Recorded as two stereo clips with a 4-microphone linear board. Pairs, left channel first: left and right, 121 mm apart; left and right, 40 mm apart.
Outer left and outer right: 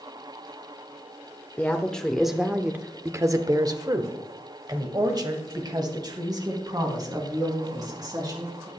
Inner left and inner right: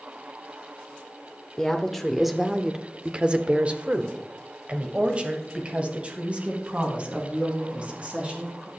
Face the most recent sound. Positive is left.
turn(degrees=-35)  # may be behind; listen again after turning